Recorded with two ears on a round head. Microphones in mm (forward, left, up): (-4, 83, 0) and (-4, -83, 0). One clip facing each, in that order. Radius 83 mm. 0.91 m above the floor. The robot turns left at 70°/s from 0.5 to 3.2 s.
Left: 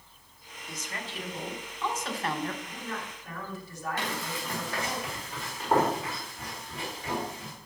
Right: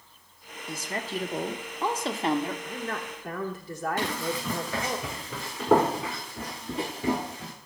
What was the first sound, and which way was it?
A woman speaking, 40° right.